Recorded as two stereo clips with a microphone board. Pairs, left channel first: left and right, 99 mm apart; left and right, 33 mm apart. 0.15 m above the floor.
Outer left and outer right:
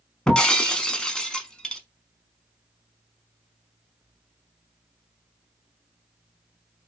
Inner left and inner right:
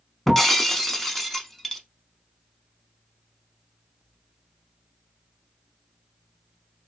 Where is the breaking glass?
10° left (ahead or behind), 0.6 m.